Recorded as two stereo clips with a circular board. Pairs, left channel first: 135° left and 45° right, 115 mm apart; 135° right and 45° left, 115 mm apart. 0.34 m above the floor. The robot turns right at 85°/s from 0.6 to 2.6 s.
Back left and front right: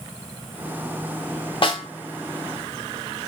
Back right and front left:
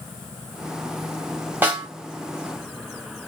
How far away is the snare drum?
About 1.8 m.